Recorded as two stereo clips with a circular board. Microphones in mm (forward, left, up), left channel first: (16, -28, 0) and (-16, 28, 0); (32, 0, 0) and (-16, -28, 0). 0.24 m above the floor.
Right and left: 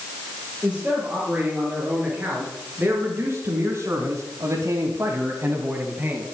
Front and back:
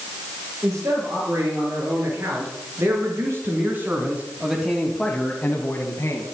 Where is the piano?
I don't hear a piano.